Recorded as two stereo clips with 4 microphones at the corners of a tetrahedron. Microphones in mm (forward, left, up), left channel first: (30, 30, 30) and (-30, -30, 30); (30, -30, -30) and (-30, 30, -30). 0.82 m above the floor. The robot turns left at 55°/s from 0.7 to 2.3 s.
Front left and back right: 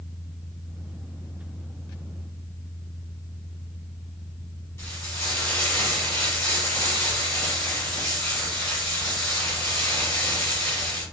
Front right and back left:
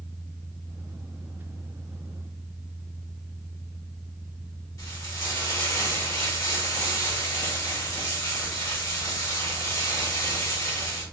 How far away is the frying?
About 1.1 m.